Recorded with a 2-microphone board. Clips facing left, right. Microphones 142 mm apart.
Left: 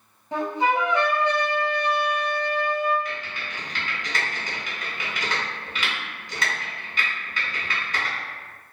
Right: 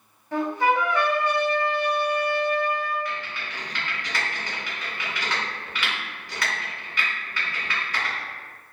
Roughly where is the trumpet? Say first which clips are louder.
Right 1 dB; centre.